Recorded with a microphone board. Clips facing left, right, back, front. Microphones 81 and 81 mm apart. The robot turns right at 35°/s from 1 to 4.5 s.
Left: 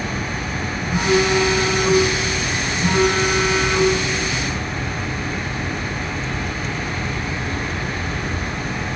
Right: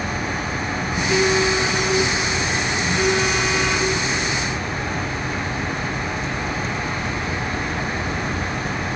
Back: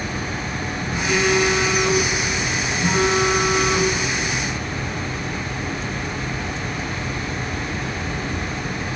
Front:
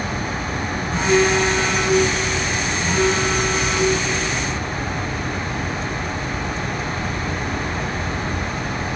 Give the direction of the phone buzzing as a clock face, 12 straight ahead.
10 o'clock.